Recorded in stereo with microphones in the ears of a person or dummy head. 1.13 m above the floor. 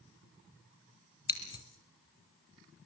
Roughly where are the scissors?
Left.